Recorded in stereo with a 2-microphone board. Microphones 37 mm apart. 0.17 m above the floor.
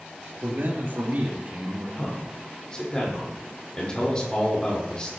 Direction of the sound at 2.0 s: 25° left (ahead or behind).